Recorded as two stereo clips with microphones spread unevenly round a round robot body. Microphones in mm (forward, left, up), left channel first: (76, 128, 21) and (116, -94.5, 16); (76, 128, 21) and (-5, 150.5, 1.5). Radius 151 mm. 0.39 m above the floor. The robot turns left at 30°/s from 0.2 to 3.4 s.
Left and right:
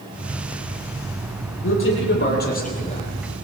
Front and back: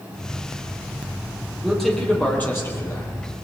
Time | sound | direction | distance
1.6 | a man speaking | 75° left | 10 m